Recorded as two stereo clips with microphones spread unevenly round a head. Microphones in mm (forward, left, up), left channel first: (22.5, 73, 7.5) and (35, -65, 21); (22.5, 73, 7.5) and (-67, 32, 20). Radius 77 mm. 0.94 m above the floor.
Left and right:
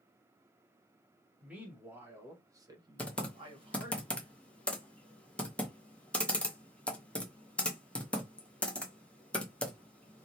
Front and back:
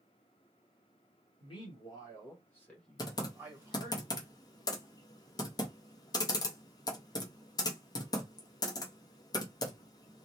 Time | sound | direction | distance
1.4 | a man speaking | 5° right | 1.6 m
3.0 | typing on a keyboard | 20° left | 0.8 m